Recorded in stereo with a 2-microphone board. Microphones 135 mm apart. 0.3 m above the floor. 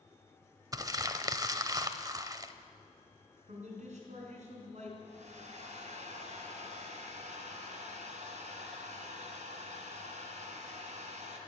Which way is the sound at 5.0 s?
60° right (ahead or behind).